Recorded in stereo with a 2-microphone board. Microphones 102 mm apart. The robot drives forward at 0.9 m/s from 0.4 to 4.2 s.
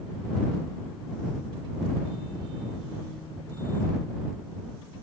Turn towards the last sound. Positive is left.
No sound to turn to.